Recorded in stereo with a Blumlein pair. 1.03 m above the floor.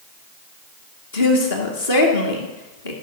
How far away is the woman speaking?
About 1.8 m.